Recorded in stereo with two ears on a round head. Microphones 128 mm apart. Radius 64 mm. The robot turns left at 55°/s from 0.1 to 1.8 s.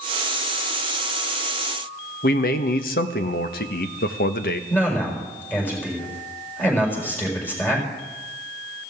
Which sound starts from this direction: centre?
A man speaking, at 4.7 s.